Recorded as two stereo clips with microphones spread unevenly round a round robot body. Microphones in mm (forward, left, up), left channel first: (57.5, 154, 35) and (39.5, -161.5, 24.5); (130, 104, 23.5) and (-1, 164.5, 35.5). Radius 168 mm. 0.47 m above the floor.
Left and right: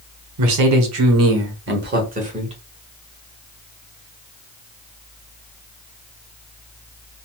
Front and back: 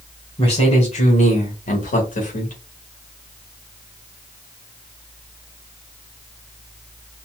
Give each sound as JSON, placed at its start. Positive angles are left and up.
{"t": 0.4, "sound": "a man speaking", "azimuth_deg": -80, "distance_m": 1.4}